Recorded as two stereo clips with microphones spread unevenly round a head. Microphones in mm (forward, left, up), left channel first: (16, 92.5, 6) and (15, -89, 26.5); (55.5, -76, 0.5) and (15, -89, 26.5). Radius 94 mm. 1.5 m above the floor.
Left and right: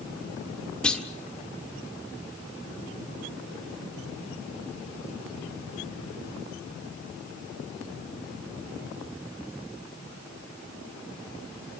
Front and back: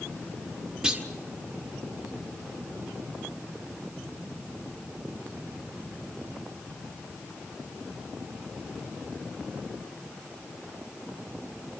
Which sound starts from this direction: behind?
A clunk, at 0.8 s.